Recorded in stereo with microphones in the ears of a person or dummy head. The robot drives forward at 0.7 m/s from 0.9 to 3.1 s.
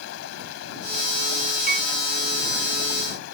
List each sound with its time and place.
0.0 s running water: 90° left; by 3.4 s 80° left
1.7 s a piano: 50° right (ahead or behind)